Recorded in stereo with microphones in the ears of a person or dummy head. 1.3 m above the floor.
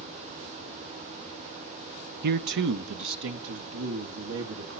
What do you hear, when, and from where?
2.2 s a man speaking: 55° right (ahead or behind), 0.6 m; by 4.8 s 80° right, 2.5 m